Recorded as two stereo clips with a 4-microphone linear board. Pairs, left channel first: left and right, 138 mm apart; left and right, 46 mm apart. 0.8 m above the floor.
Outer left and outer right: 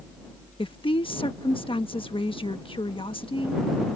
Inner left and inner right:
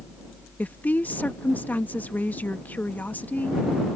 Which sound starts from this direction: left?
A woman speaking, at 0.6 s.